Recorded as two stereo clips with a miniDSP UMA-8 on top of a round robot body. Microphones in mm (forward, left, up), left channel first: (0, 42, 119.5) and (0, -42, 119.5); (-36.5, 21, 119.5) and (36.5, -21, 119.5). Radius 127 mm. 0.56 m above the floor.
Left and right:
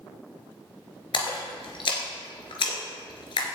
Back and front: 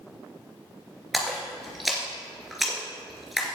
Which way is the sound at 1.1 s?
60° left.